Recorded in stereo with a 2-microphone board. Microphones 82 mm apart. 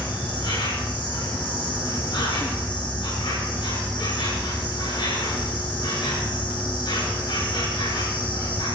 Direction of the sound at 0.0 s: 75° left (ahead or behind).